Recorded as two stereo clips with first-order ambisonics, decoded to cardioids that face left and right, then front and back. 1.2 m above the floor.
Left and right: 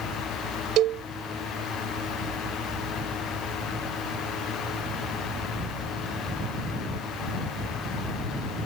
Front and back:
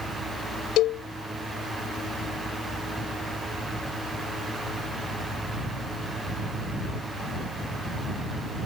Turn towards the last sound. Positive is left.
turn(degrees=-45)